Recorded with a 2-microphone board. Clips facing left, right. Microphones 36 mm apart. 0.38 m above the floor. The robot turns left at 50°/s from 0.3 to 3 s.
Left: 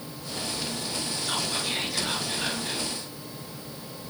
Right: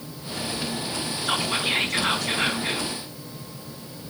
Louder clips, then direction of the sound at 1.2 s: Right 7 dB; 35° right.